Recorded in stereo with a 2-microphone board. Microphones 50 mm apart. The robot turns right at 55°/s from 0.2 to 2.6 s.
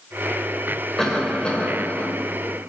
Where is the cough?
20° left, 1.2 m; by 2.1 s 80° left, 1.2 m.